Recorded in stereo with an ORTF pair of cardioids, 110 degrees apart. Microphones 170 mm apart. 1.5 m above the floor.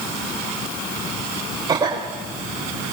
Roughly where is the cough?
Ahead right.